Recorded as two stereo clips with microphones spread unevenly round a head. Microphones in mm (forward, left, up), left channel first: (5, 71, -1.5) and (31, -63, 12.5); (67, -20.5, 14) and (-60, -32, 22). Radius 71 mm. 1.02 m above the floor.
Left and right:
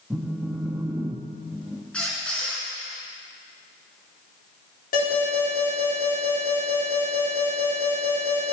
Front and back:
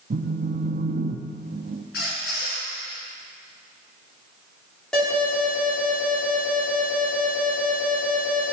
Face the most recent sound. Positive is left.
turn(degrees=90)